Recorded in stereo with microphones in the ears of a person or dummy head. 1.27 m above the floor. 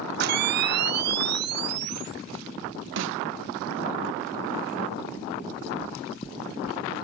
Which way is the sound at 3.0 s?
60° right (ahead or behind).